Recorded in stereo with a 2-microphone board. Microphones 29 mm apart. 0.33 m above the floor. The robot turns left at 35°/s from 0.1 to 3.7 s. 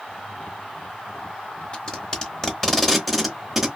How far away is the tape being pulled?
About 0.8 m.